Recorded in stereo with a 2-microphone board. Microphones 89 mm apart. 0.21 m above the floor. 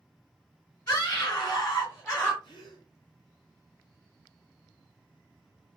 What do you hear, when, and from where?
0.9 s a scream: 45° left (ahead or behind), 2.5 m; by 2.3 s 20° left (ahead or behind), 1.3 m
2.4 s a gasp: 60° left (ahead or behind), 2.5 m